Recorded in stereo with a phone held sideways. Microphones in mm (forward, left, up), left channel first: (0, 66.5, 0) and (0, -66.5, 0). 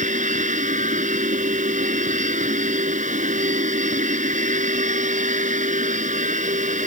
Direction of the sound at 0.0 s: 75° right (ahead or behind).